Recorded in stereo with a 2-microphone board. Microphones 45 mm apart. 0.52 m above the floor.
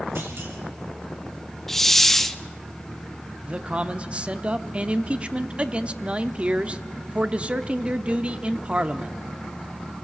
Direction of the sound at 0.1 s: 55° right (ahead or behind).